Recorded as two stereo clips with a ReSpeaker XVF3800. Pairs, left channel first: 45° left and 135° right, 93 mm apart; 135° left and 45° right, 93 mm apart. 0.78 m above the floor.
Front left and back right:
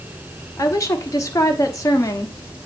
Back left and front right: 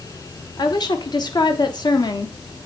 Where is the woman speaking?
95° left, 1.1 m.